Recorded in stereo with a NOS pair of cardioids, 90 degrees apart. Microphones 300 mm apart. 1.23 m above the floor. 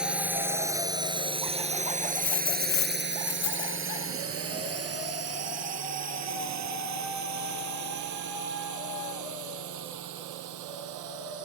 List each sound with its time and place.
0.0 s a drone: 5° right; by 11.5 s 80° right
2.1 s a dropped coin: 65° left